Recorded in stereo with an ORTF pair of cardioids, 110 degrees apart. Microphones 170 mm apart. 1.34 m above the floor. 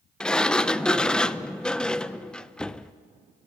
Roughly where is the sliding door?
Ahead.